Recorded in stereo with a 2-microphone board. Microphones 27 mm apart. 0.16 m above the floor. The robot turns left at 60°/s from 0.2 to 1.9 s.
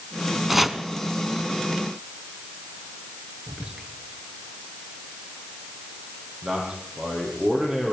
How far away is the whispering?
About 3 m.